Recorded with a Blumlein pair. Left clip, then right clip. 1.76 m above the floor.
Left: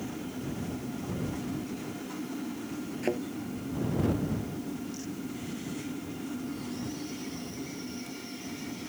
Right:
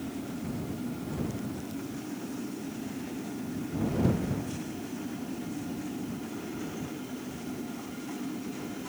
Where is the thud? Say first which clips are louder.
Left 8 dB; 40° left.